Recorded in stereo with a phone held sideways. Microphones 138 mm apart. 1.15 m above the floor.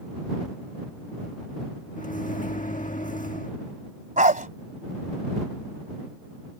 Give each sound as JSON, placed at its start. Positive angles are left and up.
{"t": 2.0, "sound": "a microwave", "side_deg": 65}
{"t": 4.2, "sound": "a dog barking", "side_deg": -65}